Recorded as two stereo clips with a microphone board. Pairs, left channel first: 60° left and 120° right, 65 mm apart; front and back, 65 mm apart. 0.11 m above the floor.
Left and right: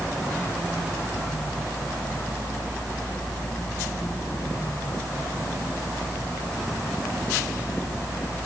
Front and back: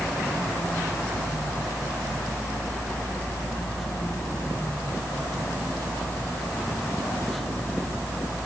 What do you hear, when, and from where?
Only background noise.